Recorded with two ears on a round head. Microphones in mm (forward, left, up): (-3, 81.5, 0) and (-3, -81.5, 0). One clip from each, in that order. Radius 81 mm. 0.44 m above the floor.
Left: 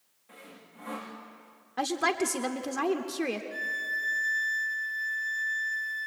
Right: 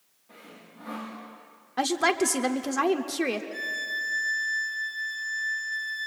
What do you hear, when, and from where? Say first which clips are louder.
0.3 s sawing: right 1 dB; 65° left (ahead or behind), 7 m
1.8 s a woman speaking: right 4 dB; 5° right (ahead or behind), 0.9 m
3.5 s a violin: right 1 dB; 20° left (ahead or behind), 2.5 m